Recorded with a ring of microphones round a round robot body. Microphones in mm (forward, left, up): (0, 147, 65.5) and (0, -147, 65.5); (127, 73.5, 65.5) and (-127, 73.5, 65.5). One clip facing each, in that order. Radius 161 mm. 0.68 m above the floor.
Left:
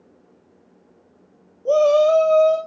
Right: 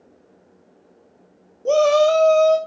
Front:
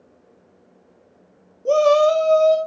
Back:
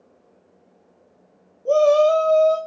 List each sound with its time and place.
1.6 s a shout: 50° right, 1.2 m